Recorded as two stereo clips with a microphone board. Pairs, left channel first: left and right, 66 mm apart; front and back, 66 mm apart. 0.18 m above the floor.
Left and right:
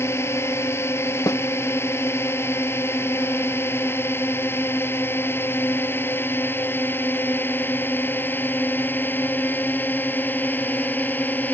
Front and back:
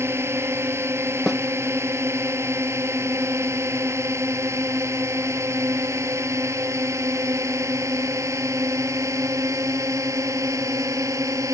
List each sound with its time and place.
0.0 s a drone: 135° left; by 11.5 s 150° left
1.3 s a snare drum: 90° left